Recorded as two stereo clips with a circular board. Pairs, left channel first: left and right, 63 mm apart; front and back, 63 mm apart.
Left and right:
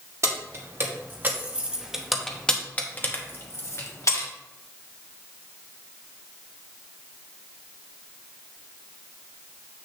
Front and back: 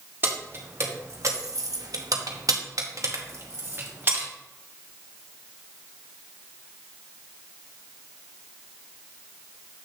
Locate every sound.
0.2 s keys jangling: 125° right, 1.5 m; by 4.3 s 125° left, 1.7 m